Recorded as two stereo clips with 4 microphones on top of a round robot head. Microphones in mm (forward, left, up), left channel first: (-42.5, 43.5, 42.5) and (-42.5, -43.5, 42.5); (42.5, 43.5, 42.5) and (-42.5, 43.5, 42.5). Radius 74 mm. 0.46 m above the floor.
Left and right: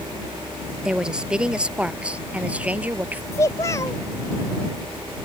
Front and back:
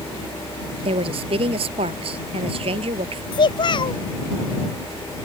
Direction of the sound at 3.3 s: 25° left.